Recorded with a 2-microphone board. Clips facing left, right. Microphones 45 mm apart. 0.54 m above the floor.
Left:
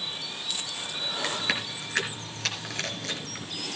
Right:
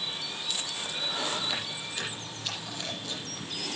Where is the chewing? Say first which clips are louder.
Left 3 dB; 80° left, 4.5 m.